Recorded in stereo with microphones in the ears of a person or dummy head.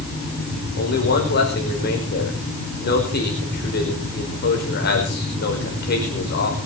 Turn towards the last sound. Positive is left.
turn(degrees=55)  # may be behind; listen again after turning